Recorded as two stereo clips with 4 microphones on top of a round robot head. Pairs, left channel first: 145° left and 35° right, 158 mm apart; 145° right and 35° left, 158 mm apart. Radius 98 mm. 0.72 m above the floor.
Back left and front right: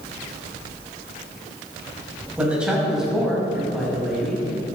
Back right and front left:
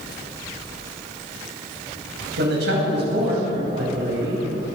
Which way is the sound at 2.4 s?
50° left.